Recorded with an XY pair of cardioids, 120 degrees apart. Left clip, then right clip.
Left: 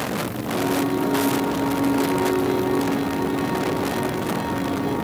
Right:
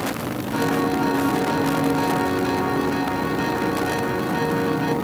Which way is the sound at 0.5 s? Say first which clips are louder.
Right 1 dB; 55° right.